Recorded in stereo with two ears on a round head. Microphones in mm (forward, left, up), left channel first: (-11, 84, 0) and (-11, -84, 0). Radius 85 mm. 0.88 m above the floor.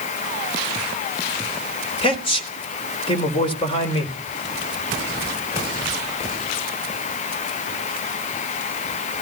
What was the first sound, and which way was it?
A man speaking, 30° left (ahead or behind).